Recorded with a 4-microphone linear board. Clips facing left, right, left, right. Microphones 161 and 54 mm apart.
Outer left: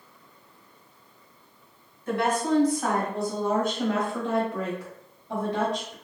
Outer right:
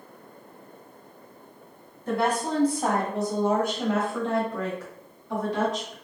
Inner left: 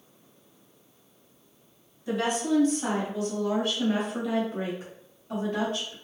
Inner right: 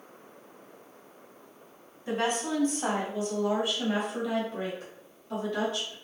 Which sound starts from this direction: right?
A woman speaking, at 2.1 s.